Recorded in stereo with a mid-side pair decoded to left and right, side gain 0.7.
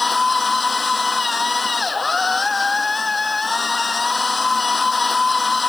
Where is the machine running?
15° left.